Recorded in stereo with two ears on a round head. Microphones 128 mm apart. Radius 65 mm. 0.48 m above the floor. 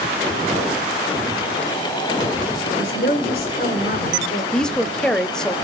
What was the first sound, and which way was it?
A woman speaking, 70° left (ahead or behind).